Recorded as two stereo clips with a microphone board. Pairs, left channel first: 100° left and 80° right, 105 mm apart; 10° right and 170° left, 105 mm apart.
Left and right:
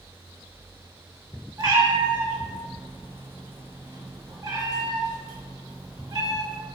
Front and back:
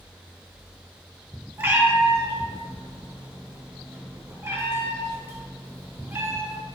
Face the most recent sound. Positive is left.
turn(degrees=-125)